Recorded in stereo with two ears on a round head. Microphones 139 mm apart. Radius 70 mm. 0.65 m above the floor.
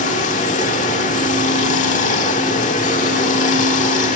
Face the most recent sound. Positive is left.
turn(degrees=50)  # may be behind; listen again after turning